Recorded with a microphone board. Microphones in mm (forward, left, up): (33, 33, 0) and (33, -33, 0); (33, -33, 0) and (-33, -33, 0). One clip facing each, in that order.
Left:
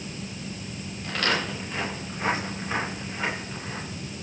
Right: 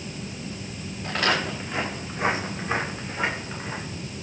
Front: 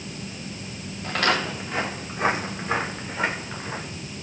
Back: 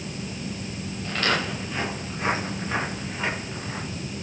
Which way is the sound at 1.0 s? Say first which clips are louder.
Right 2 dB, front 2 dB; 15° right.